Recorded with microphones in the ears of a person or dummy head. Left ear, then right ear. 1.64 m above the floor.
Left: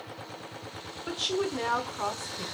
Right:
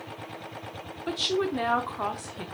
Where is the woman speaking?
5° right (ahead or behind), 0.6 m.